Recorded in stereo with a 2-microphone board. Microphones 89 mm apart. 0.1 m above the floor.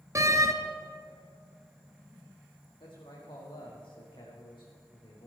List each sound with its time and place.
0.1 s a door slam: 35° right (ahead or behind), 1.0 m
2.8 s a man speaking: 70° left (ahead or behind), 4.5 m